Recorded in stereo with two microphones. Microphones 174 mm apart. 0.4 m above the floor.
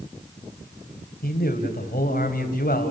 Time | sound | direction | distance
1.2 | a man speaking | 60° left (ahead or behind) | 3 m